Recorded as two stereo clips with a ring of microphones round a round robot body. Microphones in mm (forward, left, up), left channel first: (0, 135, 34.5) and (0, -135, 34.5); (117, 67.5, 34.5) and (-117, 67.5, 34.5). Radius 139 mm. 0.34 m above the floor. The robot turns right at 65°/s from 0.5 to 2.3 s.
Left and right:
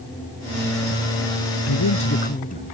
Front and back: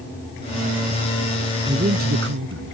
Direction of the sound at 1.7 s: 110° left.